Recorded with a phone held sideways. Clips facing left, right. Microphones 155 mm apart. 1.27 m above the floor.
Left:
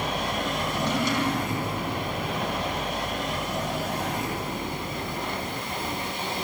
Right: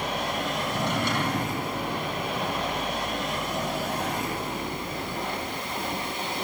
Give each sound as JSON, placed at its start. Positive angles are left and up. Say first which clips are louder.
{"t": 0.7, "sound": "a drawer", "louder": "left 2 dB", "side_deg": -60, "distance_m": 4.5}